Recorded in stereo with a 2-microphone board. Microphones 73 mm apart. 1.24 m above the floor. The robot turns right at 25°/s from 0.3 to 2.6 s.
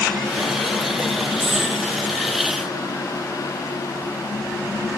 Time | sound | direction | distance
1.4 | a dropped coin | 30° right (ahead or behind) | 7 m